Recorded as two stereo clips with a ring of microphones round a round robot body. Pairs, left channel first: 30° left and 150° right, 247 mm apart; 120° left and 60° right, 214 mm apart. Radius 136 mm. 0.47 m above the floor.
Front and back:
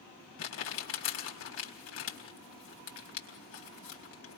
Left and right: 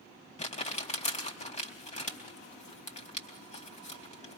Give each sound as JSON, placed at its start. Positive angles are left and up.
{"t": 0.4, "sound": "crumpling", "azimuth_deg": 65, "distance_m": 3.5}